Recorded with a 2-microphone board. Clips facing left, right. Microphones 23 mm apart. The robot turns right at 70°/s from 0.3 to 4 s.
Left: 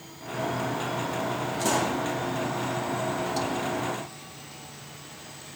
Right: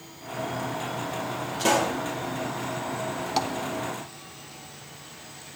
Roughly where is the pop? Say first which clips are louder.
Right 3 dB; right.